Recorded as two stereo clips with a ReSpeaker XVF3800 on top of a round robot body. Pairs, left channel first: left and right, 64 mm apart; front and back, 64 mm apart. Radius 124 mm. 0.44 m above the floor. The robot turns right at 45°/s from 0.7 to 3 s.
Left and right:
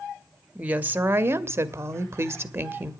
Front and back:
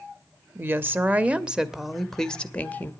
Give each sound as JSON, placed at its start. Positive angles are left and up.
{"t": 0.6, "sound": "a woman speaking", "azimuth_deg": -145, "distance_m": 1.1}